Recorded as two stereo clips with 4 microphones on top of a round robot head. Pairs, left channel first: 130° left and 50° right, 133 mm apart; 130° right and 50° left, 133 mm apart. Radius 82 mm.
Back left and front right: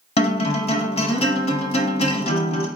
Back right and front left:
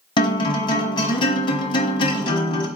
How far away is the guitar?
About 1.3 m.